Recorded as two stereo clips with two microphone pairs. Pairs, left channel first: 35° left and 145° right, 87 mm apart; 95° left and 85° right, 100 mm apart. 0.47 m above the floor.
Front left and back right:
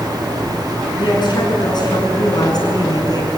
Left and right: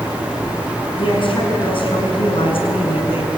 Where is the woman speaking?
65° left, 6.5 m; by 3.3 s 75° left, 6 m.